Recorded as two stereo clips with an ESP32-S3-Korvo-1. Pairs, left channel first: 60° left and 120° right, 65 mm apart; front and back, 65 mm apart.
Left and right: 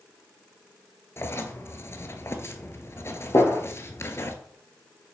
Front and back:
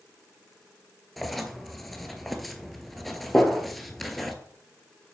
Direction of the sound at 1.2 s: 90° left.